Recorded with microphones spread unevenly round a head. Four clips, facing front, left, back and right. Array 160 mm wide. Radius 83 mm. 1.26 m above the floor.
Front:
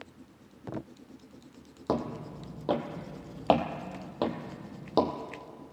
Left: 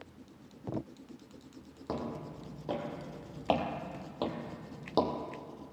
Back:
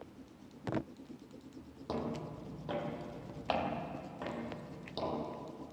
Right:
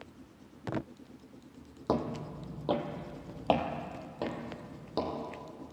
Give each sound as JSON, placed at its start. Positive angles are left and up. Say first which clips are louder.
{"t": 1.9, "sound": "footsteps", "louder": "right 6 dB, front 7 dB", "azimuth_deg": -45, "distance_m": 2.5}